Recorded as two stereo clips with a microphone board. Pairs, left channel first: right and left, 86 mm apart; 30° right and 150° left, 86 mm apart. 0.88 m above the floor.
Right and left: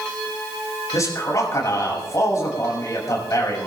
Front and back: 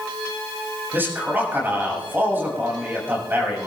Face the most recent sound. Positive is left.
turn(degrees=-145)